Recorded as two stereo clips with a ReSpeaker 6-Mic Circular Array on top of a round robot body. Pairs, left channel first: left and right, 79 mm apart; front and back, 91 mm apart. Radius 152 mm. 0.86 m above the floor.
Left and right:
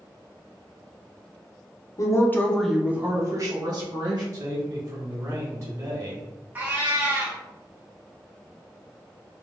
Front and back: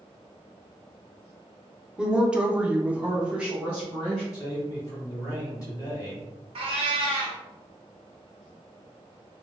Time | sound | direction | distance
2.0 | a woman speaking | 100° left | 0.9 m
4.3 | a man speaking | 50° right | 1.9 m
6.5 | a cat meowing | 160° right | 0.6 m